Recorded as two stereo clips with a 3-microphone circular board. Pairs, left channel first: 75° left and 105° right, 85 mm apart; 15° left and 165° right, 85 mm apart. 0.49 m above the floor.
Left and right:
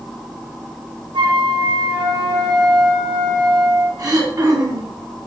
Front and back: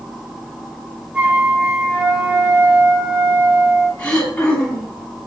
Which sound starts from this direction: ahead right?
Throat clearing, at 4.0 s.